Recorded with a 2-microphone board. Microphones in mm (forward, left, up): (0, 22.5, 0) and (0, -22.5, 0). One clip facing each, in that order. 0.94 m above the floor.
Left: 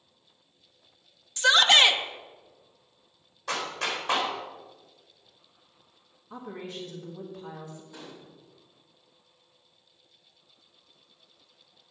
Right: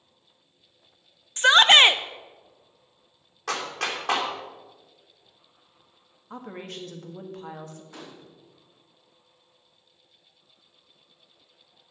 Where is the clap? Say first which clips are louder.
Right 1 dB; 60° right (ahead or behind), 2.5 m.